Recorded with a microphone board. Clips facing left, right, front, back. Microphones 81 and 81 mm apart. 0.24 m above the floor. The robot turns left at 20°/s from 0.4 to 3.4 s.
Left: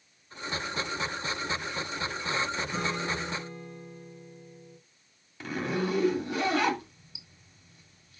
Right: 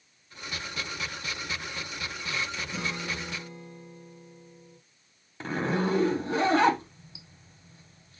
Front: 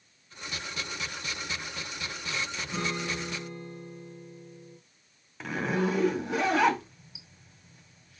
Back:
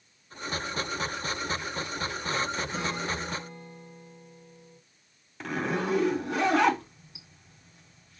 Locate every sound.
2.7 s a guitar: 55° left, 4 m; by 4.8 s 40° left, 4 m
5.4 s a zipper: 85° right, 1.6 m